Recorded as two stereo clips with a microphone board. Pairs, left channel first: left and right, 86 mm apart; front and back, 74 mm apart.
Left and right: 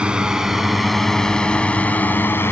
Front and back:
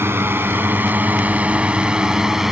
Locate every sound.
0.0 s a drone: 160° right; by 2.5 s 100° left